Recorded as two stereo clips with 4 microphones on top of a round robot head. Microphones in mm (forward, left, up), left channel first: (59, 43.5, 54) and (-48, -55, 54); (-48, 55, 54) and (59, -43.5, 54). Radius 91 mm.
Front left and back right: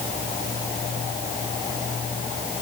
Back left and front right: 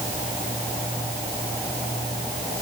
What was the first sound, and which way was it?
Only background noise.